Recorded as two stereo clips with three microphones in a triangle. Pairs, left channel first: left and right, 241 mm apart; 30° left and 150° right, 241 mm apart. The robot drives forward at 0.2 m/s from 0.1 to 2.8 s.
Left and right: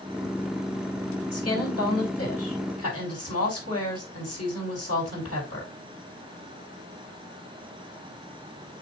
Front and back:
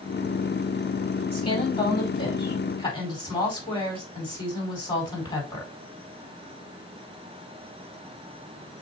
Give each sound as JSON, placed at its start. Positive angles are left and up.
{"t": 1.3, "sound": "a woman speaking", "azimuth_deg": 95, "distance_m": 5.0}